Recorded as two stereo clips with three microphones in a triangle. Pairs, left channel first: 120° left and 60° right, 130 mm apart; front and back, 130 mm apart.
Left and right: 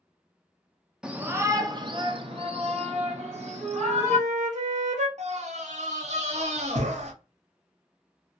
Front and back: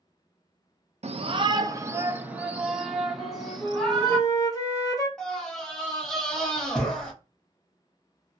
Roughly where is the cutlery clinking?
I don't hear cutlery clinking.